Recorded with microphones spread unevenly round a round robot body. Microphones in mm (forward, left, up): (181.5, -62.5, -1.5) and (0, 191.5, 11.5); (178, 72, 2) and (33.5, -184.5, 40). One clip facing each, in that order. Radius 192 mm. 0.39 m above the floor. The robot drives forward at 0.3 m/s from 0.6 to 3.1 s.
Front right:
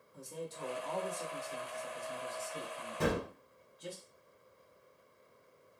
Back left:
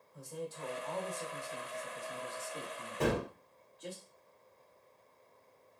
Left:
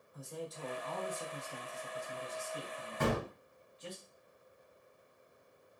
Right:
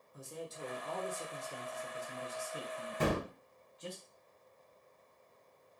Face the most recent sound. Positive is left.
turn(degrees=-145)